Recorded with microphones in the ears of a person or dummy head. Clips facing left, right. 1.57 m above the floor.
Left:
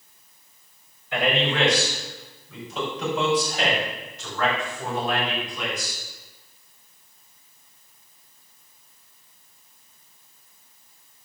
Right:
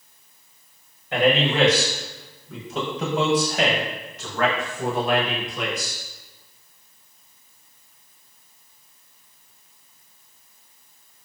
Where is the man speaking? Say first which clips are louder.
Right 4 dB; 30° right (ahead or behind), 4 m; by 6.0 s 55° right (ahead or behind), 6.5 m.